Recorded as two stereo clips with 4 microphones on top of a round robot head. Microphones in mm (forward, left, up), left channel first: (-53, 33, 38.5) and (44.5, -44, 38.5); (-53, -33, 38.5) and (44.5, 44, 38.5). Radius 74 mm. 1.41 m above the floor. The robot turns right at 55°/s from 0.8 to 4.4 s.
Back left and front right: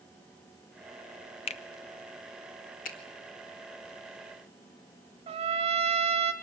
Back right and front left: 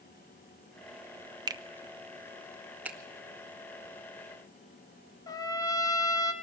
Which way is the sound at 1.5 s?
95° left.